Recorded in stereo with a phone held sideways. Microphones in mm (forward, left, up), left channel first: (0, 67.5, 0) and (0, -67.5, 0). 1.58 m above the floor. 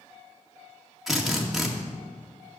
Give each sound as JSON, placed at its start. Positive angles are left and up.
{"t": 1.1, "sound": "a drill", "side_deg": 0, "distance_m": 2.0}